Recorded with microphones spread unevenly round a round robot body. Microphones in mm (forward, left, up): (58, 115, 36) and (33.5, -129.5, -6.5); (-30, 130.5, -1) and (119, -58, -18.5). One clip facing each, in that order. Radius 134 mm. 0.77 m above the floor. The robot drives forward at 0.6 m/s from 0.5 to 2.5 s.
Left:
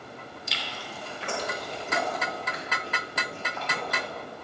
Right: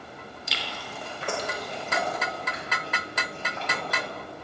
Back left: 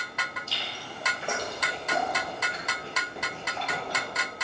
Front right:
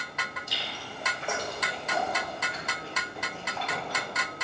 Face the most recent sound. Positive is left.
turn(degrees=-165)